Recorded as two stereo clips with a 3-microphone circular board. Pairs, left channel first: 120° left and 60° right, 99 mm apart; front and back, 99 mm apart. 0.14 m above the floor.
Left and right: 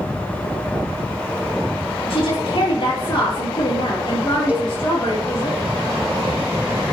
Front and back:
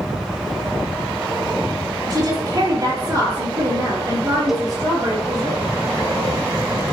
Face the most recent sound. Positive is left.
turn(degrees=-100)